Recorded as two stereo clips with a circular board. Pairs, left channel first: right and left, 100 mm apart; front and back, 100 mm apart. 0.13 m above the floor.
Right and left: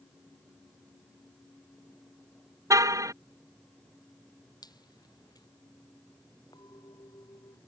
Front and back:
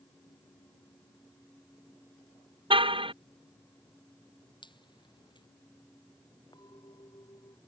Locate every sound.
2.7 s a car horn: 150° left
4.6 s dripping: 40° right
6.5 s a clink: 45° right